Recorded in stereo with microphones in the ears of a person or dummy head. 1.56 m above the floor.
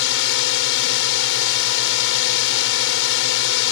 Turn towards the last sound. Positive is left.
turn(degrees=65)  # may be behind; listen again after turning